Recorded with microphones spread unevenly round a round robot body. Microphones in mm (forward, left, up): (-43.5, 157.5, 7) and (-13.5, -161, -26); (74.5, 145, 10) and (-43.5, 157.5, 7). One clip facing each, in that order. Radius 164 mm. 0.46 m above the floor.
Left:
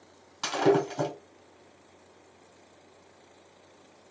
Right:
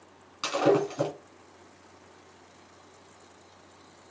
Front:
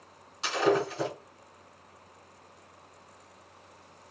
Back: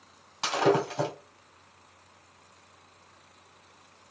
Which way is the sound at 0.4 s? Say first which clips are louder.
Even, back 1 dB; 155° left.